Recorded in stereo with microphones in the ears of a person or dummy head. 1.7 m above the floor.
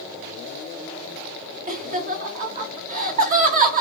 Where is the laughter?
40° right (ahead or behind), 0.9 m.